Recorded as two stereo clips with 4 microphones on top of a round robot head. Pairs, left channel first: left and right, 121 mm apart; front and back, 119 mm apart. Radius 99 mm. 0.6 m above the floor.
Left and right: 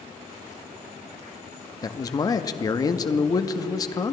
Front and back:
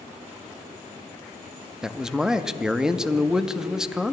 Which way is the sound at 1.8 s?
100° left.